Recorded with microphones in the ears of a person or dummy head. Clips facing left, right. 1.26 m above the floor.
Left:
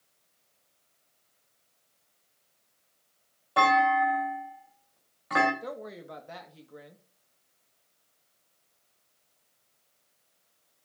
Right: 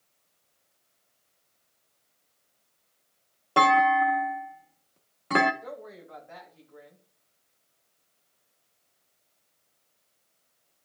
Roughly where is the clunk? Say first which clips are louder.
Right 2 dB; right.